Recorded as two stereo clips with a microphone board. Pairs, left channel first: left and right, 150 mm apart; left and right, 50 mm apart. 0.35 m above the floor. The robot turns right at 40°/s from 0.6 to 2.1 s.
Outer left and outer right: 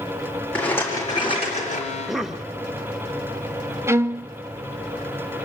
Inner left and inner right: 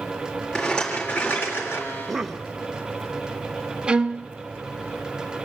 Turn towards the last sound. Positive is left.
turn(degrees=-20)  # may be behind; listen again after turning